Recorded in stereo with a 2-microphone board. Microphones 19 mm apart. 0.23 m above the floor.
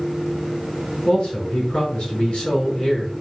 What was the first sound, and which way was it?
A man speaking, 55° left (ahead or behind).